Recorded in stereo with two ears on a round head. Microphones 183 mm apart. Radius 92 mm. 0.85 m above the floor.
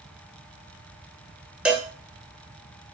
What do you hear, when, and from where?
1.6 s a cowbell: 5° right (ahead or behind), 0.6 m